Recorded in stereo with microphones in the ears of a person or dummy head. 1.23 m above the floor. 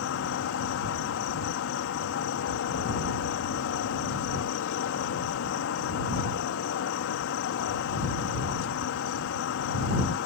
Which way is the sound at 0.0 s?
65° left (ahead or behind).